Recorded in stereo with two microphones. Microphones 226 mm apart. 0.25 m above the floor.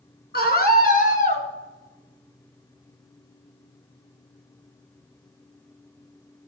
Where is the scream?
45° left (ahead or behind), 3.5 m; by 1.4 s 30° left (ahead or behind), 3 m.